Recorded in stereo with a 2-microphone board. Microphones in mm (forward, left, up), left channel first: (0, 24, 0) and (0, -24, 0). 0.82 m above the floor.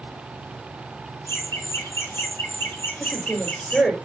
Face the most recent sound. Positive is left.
turn(degrees=25)  # may be behind; listen again after turning